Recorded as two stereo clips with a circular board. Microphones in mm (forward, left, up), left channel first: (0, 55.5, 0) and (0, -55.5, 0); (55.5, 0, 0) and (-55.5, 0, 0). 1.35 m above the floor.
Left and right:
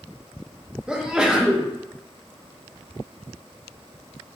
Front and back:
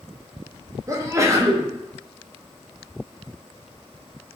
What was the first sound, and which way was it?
A sneeze, 165° right.